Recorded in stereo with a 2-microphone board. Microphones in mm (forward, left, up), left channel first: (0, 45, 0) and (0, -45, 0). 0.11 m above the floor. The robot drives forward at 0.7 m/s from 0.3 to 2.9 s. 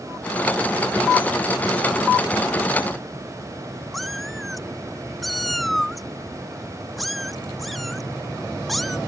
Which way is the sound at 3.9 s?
Centre (ahead or behind).